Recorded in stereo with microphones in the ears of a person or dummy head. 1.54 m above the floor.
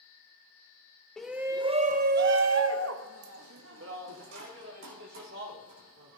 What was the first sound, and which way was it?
A shout, 5° right (ahead or behind).